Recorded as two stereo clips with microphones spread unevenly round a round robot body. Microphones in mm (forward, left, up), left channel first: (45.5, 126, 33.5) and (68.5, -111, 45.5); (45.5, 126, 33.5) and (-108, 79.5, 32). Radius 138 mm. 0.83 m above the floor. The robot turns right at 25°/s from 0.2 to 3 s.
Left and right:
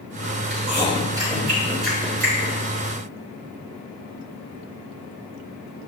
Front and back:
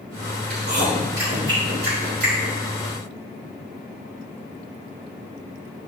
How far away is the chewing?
About 3.5 m.